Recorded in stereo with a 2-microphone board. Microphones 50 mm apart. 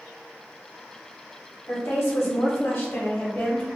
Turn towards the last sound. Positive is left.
turn(degrees=25)  # may be behind; listen again after turning